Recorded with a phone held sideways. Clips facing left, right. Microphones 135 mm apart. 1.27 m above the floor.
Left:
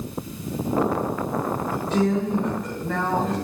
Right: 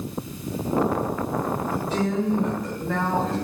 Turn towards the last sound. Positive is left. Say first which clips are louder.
# left 5 dB
turn(degrees=0)  # may be behind; listen again after turning